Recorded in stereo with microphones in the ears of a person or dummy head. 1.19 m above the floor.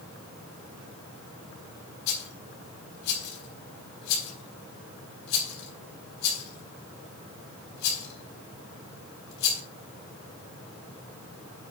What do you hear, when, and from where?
2.1 s a rattle: 60° left (ahead or behind), 4.5 m